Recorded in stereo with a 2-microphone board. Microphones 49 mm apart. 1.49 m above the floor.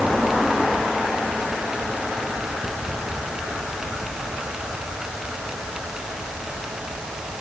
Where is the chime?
I don't hear a chime.